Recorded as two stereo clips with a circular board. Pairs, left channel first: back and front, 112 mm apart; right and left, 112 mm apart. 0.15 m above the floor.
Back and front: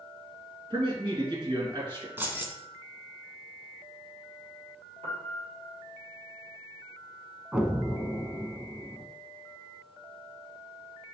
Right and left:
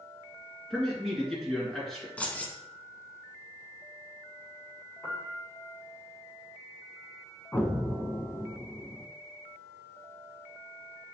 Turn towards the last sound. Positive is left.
turn(degrees=-65)